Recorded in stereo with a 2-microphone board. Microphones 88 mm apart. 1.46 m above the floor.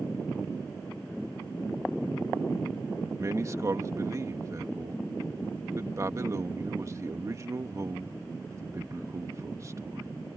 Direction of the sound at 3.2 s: 35° right (ahead or behind).